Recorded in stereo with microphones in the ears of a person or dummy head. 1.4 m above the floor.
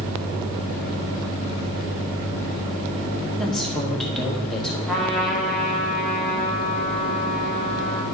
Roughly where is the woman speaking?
Centre.